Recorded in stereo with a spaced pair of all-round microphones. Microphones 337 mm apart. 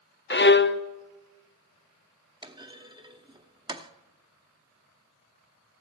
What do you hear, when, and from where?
0.3 s a violin: 35° left (ahead or behind), 0.6 m
2.4 s a clunk: 15° right (ahead or behind), 0.7 m